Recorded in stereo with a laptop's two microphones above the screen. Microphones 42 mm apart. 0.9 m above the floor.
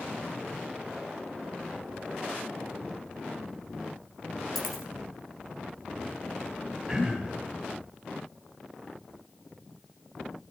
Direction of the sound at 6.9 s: 10° right (ahead or behind).